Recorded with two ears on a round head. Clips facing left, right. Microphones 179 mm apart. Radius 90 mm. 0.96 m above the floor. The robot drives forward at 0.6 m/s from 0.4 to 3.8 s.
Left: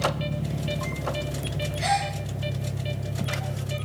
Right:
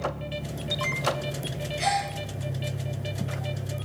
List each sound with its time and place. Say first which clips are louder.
0.0 s an engine running: left 4 dB; 45° left (ahead or behind), 1.4 m; by 3.9 s 20° left (ahead or behind), 3 m
1.8 s a gasp: left 1 dB; 70° right (ahead or behind), 9 m; by 2.1 s 65° right (ahead or behind), 9 m